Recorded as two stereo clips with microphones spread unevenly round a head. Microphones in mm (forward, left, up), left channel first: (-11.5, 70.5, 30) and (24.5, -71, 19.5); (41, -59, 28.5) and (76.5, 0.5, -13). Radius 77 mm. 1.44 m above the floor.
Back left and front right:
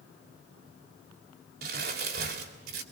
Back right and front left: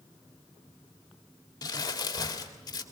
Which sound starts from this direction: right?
Crumpling, at 1.6 s.